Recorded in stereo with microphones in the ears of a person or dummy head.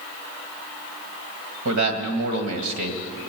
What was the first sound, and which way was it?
A man speaking, 75° right (ahead or behind).